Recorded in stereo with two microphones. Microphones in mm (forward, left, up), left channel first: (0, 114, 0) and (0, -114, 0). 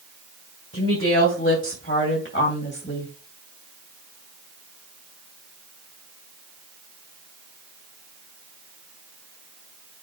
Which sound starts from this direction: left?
A woman speaking, at 0.7 s.